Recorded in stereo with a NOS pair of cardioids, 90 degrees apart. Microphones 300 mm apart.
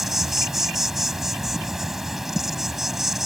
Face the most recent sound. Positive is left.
turn(degrees=0)